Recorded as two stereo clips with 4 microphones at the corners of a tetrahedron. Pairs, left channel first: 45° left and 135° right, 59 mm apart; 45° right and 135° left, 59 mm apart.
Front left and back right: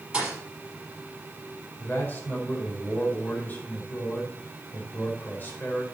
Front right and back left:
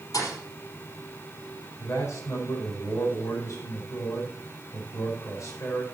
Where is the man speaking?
10° right, 4 m.